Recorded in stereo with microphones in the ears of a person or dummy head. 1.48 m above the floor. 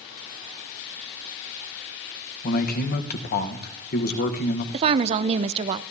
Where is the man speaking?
50° left (ahead or behind), 1.2 m.